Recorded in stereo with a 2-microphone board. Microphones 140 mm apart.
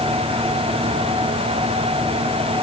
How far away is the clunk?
No clunk in this recording.